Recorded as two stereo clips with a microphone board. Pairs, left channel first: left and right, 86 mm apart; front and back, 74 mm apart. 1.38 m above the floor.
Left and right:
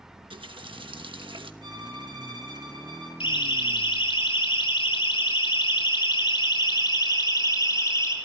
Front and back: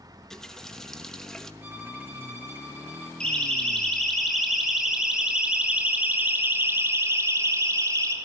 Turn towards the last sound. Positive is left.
turn(degrees=145)